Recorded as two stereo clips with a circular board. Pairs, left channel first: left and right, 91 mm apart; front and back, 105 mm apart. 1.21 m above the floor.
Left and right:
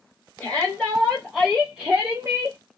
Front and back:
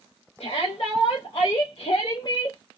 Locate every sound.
0.4 s a shout: 10° left, 1.3 m; by 2.6 s 55° right, 0.5 m